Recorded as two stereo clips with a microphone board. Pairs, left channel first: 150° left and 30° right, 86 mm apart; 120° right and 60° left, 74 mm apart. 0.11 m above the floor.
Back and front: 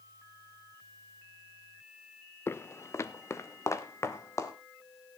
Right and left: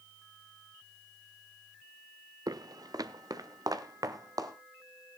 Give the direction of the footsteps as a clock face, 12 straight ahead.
9 o'clock.